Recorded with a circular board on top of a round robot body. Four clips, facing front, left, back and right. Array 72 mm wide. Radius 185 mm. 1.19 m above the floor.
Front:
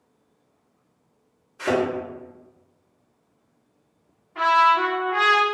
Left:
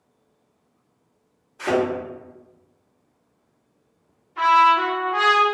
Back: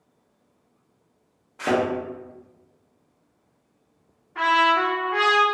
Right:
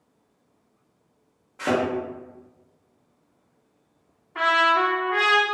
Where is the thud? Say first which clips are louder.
Left 2 dB, even; 140° right, 0.6 m.